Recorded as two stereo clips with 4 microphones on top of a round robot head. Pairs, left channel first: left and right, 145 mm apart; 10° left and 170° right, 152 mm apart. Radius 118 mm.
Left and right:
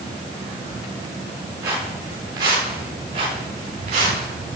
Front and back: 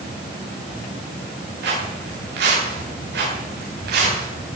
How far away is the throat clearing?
I don't hear throat clearing.